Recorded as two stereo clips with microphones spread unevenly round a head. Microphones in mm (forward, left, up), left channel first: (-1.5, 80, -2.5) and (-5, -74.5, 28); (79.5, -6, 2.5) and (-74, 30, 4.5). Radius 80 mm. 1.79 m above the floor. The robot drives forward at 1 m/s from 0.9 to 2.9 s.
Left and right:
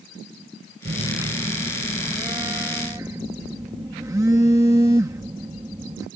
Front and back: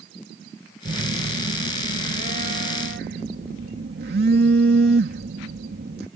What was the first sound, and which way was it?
A phone buzzing, 135° right.